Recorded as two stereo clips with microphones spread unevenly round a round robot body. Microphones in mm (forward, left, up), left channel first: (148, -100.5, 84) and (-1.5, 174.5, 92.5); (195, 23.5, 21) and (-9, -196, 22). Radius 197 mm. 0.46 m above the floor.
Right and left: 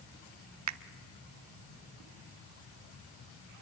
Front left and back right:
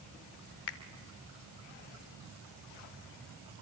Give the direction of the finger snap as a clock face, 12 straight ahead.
9 o'clock.